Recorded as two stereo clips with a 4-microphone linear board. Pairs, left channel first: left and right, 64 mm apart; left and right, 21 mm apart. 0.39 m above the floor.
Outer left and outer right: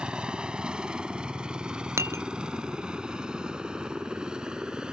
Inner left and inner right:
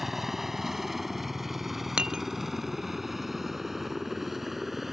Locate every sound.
0.0 s a helicopter: 15° right (ahead or behind); by 4.9 s 10° right (ahead or behind)
2.0 s dishes clattering: 45° right (ahead or behind)